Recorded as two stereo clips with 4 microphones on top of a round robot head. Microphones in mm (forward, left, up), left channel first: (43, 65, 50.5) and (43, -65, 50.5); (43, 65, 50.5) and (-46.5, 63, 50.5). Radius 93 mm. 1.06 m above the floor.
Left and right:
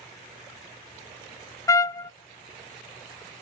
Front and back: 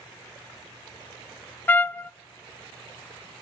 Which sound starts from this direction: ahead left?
A trumpet, at 1.7 s.